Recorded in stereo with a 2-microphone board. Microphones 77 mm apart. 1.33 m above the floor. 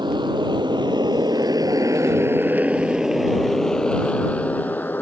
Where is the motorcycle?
85° right; by 5.0 s 25° left (ahead or behind).